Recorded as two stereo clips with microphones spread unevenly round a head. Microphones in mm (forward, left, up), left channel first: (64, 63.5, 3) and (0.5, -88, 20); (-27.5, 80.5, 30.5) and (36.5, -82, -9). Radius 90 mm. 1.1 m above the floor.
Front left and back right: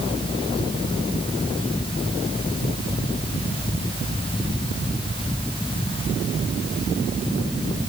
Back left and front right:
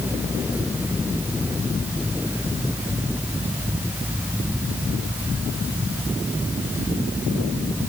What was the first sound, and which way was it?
Only background noise.